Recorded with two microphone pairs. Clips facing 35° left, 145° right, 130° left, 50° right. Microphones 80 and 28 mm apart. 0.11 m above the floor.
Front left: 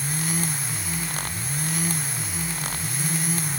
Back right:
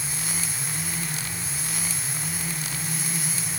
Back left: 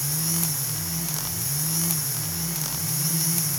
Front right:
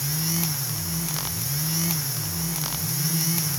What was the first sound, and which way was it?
Only background noise.